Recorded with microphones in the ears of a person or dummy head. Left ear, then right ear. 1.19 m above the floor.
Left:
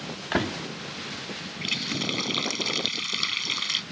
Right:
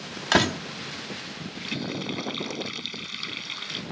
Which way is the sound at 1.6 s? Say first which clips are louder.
Left 5 dB; 25° left (ahead or behind).